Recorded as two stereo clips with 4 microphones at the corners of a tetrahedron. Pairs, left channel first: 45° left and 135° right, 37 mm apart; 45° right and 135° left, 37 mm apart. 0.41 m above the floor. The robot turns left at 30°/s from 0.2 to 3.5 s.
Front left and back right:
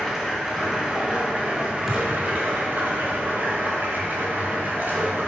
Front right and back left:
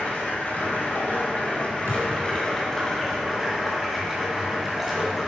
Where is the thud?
140° left, 1.4 m; by 2.1 s 135° left, 1.4 m.